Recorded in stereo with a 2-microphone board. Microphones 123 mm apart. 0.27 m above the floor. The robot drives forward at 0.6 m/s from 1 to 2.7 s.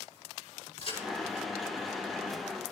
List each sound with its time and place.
0.8 s a crack: 55° left (ahead or behind), 10 m